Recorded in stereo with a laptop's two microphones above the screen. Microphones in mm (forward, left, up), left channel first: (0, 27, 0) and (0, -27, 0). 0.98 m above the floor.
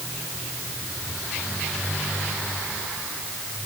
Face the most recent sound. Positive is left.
No sound to turn to.